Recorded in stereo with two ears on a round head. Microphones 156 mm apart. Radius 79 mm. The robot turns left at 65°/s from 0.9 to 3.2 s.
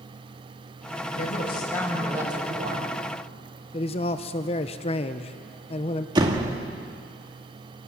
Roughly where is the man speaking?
Left.